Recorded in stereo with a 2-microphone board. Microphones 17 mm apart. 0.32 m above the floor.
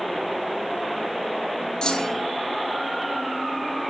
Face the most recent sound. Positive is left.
turn(degrees=50)  # may be behind; listen again after turning